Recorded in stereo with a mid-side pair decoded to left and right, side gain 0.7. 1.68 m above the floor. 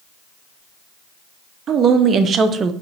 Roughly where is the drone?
No drone in this recording.